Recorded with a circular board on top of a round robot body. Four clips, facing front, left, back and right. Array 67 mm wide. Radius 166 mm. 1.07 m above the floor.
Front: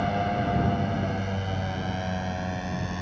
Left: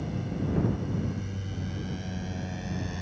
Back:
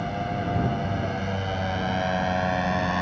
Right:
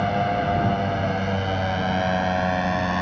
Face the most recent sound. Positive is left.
turn(degrees=-125)